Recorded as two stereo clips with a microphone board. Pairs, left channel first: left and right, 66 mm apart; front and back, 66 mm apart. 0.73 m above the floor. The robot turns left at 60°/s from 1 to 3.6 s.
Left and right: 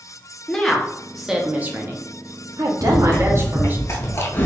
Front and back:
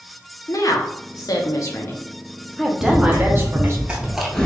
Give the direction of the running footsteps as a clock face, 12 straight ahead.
6 o'clock.